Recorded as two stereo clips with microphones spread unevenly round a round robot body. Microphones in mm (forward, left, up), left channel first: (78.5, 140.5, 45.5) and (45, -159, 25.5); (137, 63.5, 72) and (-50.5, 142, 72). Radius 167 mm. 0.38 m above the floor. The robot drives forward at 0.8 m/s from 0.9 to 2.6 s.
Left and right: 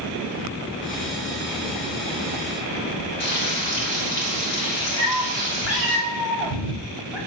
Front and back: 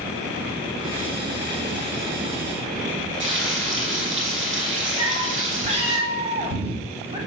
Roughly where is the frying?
Behind left.